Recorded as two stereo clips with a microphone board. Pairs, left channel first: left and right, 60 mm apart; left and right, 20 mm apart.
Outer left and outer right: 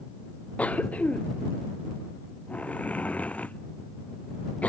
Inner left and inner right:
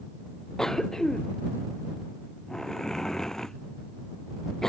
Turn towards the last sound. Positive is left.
turn(degrees=25)  # may be behind; listen again after turning